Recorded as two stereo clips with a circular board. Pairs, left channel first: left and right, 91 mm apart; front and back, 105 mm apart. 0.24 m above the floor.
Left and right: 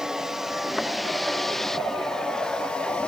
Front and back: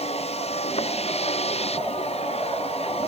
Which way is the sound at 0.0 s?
5° right.